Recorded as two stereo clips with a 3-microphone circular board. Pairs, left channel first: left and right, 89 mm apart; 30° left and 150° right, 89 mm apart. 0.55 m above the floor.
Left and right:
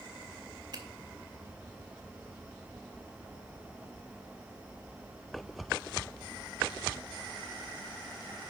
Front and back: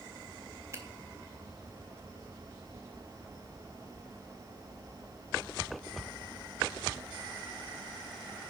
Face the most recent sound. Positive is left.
turn(degrees=-100)